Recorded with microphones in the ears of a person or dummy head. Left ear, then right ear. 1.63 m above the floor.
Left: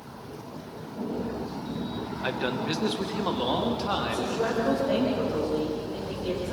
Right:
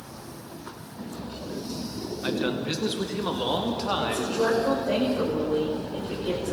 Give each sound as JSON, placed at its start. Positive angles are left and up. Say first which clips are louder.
{"t": 2.2, "sound": "a man speaking", "louder": "right 1 dB", "side_deg": 25, "distance_m": 1.4}
{"t": 4.0, "sound": "a woman speaking", "louder": "right 2 dB", "side_deg": 0, "distance_m": 5.5}